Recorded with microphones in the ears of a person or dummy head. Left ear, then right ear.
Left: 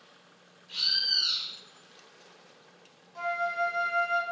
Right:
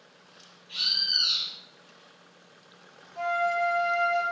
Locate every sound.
0.7 s a bird: 40° left (ahead or behind), 1.1 m
3.1 s a flute: 65° left (ahead or behind), 1.2 m